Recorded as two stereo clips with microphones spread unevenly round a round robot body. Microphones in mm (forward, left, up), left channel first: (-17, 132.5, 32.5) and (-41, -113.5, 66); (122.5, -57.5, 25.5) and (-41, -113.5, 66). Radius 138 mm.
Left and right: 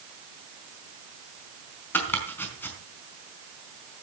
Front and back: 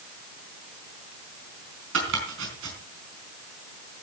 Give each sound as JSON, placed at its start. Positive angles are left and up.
{"t": 1.9, "sound": "chopping", "azimuth_deg": 165, "distance_m": 4.5}